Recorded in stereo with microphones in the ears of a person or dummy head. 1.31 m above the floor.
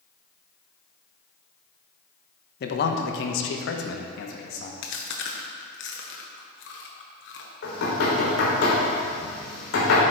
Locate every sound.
2.6 s a man speaking: 60° left (ahead or behind), 0.8 m
4.8 s chewing: 65° left (ahead or behind), 1.1 m
7.6 s knocking: 85° left, 3 m